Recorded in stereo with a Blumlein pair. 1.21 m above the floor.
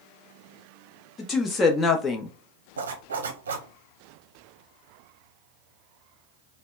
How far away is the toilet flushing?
I don't hear a toilet flushing.